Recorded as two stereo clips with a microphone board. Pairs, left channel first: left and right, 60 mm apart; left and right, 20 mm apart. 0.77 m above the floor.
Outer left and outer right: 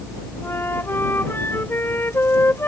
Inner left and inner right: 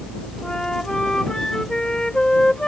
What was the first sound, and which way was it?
A flute, 40° left (ahead or behind).